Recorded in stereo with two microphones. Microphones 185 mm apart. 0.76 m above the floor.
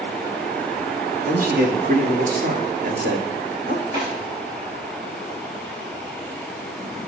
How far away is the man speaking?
About 1.1 m.